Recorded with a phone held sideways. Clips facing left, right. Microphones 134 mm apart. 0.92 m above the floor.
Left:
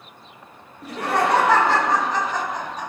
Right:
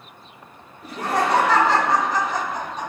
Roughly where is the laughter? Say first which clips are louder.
Left 1 dB; left.